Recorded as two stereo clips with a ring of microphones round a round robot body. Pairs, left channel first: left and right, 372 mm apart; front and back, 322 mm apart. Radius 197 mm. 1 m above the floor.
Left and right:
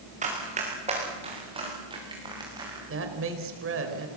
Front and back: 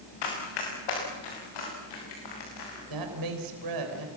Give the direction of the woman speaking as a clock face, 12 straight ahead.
5 o'clock.